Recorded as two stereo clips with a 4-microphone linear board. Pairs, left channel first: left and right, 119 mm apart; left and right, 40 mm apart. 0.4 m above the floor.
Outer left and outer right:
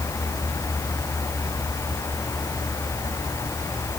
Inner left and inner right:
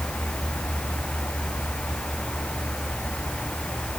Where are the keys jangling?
No keys jangling in this recording.